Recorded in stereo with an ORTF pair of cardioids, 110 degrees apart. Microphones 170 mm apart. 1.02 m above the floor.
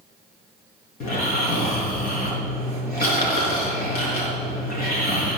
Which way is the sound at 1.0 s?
60° left.